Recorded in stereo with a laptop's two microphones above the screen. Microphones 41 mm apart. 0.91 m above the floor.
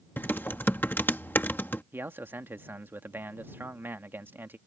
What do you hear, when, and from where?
0.2 s typing on a keyboard: 55° left (ahead or behind)
1.9 s a man speaking: 65° right (ahead or behind)